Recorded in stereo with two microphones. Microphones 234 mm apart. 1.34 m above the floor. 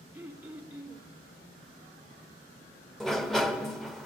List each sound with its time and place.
0.1 s throat clearing: 5° right (ahead or behind), 1.1 m
3.0 s a sliding door: centre (ahead or behind), 0.6 m